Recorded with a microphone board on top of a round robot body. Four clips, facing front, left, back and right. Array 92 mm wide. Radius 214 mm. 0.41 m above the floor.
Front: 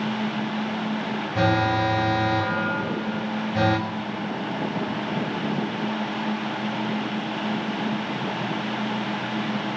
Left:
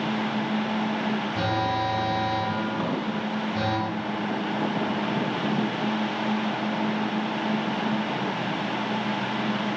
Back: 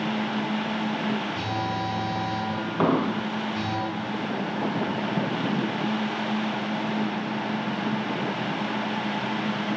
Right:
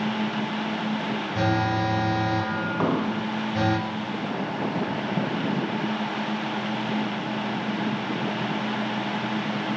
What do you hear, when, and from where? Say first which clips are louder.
1.4 s an alarm: right 4 dB, front 7 dB; 10° right, 5.5 m
2.8 s an explosion: right 3 dB, back 4 dB; 155° right, 0.7 m